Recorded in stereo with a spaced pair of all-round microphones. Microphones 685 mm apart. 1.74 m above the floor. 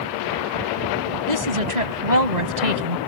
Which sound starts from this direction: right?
A woman speaking, at 1.3 s.